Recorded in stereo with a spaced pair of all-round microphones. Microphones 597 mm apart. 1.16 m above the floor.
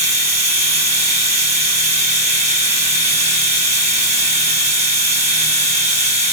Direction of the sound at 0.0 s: 10° right (ahead or behind).